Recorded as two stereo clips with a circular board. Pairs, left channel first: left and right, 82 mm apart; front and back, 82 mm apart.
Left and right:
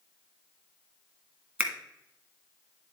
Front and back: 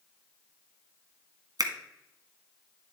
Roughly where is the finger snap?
Behind.